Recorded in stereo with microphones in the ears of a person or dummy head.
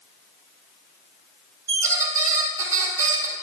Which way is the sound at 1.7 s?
20° right (ahead or behind).